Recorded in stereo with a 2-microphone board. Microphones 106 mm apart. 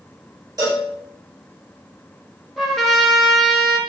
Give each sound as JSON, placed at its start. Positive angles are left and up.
{"t": 0.6, "sound": "a cowbell", "side_deg": -40, "distance_m": 1.1}
{"t": 2.6, "sound": "a trumpet", "side_deg": 0, "distance_m": 0.5}